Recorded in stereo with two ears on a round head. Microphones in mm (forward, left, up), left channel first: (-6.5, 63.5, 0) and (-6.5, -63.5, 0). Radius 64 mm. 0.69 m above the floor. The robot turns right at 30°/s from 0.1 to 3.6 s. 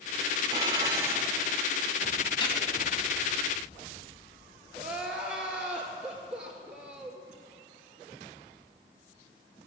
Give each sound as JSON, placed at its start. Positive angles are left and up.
{"t": 0.5, "sound": "dishes clattering", "side_deg": -35, "distance_m": 1.4}
{"t": 2.4, "sound": "a gunshot", "side_deg": 35, "distance_m": 2.5}
{"t": 4.8, "sound": "crying", "side_deg": -10, "distance_m": 2.0}